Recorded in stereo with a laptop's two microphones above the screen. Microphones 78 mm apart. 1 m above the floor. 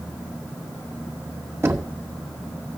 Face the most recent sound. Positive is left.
turn(degrees=-30)  # may be behind; listen again after turning